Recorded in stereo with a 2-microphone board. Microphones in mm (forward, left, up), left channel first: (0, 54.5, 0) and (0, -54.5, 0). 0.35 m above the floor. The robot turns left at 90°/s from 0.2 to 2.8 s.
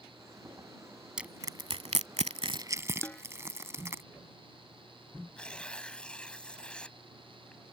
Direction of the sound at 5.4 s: 10° left (ahead or behind).